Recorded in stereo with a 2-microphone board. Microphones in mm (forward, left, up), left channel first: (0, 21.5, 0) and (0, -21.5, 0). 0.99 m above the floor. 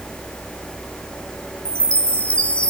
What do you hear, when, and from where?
1.6 s a chime: 25° left (ahead or behind), 0.9 m